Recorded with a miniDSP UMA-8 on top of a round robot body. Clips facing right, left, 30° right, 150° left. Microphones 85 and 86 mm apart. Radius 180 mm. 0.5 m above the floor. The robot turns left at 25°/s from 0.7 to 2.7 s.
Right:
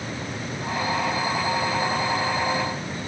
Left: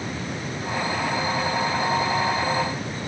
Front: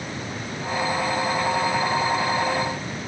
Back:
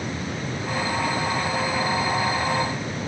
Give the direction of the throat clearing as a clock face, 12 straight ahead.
No throat clearing in this recording.